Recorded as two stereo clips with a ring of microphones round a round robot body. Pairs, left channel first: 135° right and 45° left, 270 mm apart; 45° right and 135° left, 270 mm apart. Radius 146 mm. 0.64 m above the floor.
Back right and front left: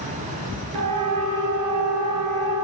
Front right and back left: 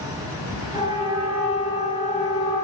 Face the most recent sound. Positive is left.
turn(degrees=65)